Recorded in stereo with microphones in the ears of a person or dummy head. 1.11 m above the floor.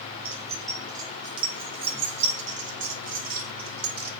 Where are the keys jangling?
10° right (ahead or behind), 3.5 m; by 4.1 s 55° right (ahead or behind), 4.5 m.